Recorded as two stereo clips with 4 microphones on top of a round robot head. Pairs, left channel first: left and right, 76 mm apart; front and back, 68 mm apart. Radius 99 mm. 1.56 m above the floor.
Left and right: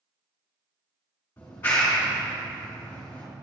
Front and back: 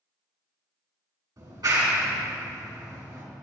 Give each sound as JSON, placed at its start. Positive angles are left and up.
{"t": 1.4, "sound": "a clap", "azimuth_deg": 160, "distance_m": 3.5}